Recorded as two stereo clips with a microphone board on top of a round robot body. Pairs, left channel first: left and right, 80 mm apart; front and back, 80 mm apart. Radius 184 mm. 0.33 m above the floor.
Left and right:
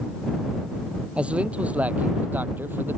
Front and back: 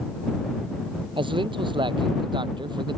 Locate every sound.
1.2 s a man speaking: 165° right; by 3.0 s 155° right